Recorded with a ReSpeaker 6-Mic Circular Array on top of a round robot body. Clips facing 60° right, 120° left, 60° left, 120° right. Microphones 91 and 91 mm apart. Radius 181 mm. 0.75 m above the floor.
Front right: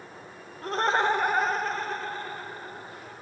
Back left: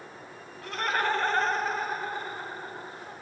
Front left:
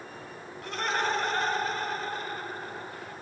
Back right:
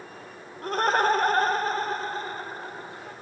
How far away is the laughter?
About 1.2 m.